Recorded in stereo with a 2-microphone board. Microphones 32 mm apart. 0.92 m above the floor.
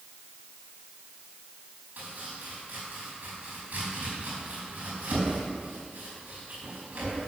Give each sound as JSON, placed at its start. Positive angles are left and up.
{"t": 2.0, "sound": "chopping", "side_deg": -55, "distance_m": 5.0}